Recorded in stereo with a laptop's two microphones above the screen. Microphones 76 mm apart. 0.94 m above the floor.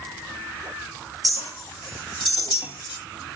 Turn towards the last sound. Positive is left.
turn(degrees=80)